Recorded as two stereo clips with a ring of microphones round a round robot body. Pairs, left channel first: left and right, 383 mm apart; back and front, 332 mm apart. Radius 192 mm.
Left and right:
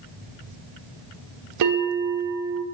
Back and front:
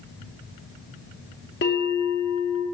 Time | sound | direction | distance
1.6 | a bell | 125° right | 1.0 m